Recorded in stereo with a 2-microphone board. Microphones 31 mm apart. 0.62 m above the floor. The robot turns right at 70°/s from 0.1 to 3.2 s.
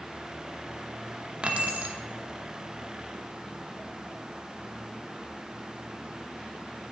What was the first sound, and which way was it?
Keys jangling, 135° right.